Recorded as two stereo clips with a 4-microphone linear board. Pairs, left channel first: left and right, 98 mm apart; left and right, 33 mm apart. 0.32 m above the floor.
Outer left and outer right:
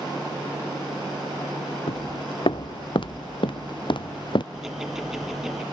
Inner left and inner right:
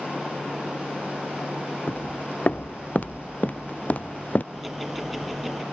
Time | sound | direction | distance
1.9 | footsteps | 60° left (ahead or behind) | ?
4.5 | ticking | 5° right (ahead or behind) | ?